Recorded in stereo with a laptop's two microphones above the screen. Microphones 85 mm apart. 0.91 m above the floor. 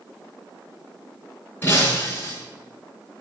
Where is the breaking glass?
25° left (ahead or behind), 9.5 m.